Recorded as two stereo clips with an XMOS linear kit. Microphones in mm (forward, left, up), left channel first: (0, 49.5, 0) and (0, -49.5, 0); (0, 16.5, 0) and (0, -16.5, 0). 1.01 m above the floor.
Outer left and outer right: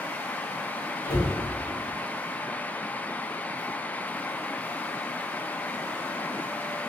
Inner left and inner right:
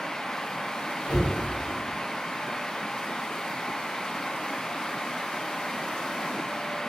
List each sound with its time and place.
1.1 s a cupboard door: 30° left (ahead or behind), 1.8 m